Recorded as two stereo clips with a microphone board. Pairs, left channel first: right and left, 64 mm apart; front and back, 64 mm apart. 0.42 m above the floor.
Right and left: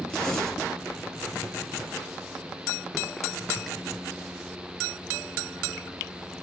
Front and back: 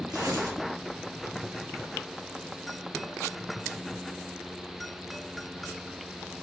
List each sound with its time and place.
0.1 s tearing paper: 170° right, 1.1 m